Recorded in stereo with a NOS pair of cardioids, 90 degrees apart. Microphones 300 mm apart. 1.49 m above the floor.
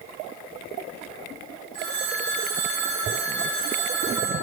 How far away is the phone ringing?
About 2 m.